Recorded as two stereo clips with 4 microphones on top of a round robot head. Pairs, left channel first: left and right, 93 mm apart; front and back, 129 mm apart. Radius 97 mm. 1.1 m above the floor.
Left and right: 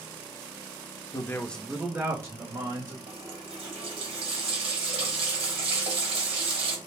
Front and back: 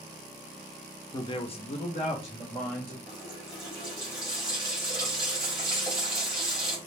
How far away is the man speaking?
About 0.6 m.